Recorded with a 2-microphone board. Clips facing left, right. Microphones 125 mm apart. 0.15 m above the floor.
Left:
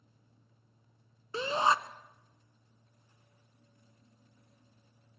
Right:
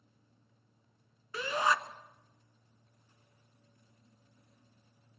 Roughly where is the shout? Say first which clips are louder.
Left 2 dB; left.